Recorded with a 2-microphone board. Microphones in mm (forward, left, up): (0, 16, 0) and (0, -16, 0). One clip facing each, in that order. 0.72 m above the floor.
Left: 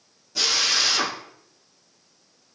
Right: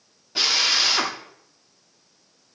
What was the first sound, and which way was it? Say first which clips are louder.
A drill: right 2 dB; 35° right (ahead or behind).